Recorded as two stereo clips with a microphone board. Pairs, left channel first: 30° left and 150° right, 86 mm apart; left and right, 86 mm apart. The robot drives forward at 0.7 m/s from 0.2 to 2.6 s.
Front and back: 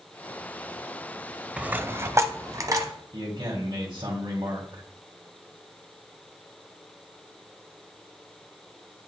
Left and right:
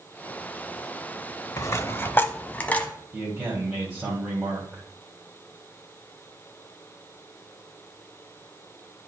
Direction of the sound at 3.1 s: 175° right.